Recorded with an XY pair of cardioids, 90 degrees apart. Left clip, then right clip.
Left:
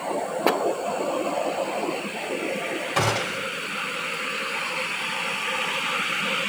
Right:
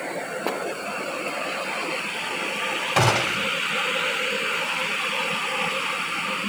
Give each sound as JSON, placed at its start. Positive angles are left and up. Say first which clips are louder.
{"t": 3.0, "sound": "a gunshot", "louder": "right 4 dB", "azimuth_deg": -35, "distance_m": 2.0}